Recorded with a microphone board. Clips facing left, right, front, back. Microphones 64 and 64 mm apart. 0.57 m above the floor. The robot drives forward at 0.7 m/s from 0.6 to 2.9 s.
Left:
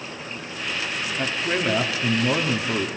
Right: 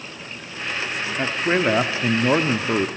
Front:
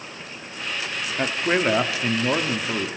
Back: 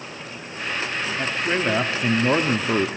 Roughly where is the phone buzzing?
I don't hear a phone buzzing.